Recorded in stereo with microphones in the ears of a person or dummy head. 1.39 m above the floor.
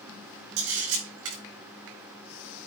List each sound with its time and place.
0.6 s a camera shutter: 75° right (ahead or behind), 4.5 m